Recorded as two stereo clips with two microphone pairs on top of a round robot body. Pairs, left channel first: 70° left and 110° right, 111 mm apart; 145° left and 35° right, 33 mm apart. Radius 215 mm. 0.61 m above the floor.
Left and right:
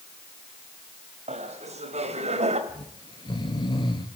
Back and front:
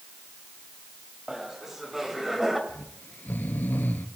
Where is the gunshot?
I don't hear a gunshot.